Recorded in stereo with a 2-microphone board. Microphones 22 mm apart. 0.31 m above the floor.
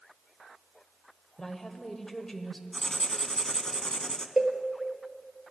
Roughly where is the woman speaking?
Left.